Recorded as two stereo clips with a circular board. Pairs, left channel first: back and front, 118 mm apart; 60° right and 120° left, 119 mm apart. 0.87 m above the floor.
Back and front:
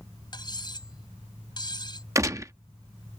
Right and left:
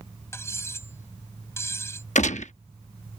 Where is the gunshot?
65° right.